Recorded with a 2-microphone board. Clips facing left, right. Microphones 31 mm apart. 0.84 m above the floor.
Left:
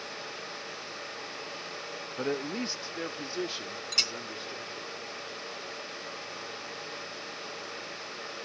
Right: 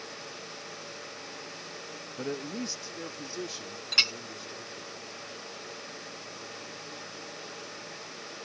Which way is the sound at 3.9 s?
30° right (ahead or behind).